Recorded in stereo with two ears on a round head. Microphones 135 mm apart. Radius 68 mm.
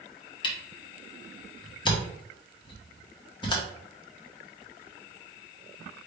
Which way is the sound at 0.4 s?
30° left (ahead or behind).